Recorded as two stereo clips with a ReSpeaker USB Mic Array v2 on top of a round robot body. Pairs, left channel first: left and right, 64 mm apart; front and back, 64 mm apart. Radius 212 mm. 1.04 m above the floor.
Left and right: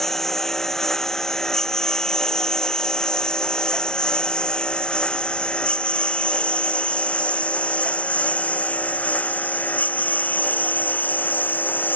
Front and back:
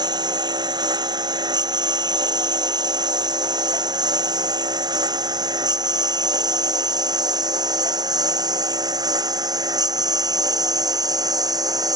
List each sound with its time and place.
0.0 s a lawn mower: 175° left; by 12.0 s 155° left